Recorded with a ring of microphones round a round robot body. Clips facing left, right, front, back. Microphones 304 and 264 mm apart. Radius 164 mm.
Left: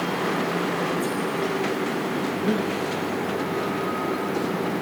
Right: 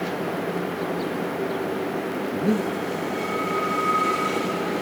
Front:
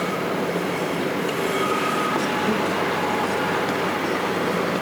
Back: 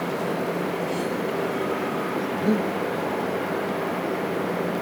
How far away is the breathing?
About 1.1 m.